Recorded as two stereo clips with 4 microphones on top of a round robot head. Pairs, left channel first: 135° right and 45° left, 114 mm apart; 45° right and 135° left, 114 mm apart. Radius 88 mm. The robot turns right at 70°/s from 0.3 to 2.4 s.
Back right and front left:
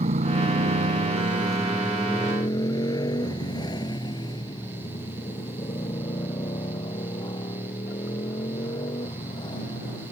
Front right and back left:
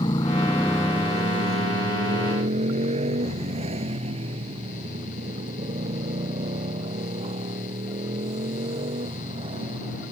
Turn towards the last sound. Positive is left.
turn(degrees=175)